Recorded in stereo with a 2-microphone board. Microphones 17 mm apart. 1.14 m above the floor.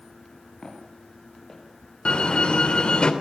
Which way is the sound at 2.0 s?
75° left (ahead or behind).